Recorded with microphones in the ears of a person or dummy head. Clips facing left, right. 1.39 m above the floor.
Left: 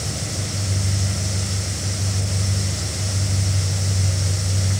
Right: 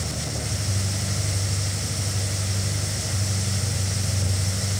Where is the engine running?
35° left (ahead or behind), 6 m.